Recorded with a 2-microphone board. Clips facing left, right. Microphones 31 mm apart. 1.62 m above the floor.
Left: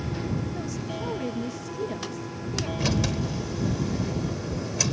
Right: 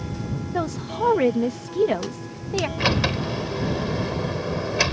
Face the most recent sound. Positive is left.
turn(degrees=-40)  # may be behind; listen again after turning